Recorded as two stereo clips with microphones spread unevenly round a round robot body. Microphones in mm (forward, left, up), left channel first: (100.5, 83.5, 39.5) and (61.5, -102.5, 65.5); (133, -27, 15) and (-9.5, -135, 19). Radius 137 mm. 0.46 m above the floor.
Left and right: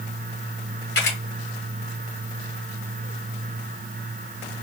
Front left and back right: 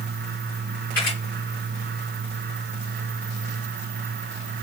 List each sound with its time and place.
0.9 s a camera shutter: 120° left, 2.5 m